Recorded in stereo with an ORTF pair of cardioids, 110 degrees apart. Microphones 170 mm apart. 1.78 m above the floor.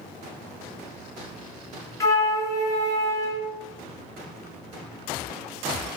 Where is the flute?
20° left, 0.6 m.